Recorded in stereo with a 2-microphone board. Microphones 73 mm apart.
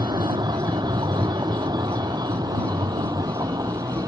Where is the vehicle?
80° right; by 4.1 s 60° right (ahead or behind).